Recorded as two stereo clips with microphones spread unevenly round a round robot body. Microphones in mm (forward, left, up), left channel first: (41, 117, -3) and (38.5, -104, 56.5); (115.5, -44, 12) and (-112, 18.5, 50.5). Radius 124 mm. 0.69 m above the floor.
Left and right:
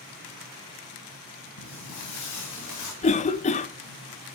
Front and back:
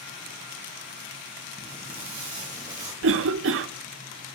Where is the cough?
130° left, 0.8 m.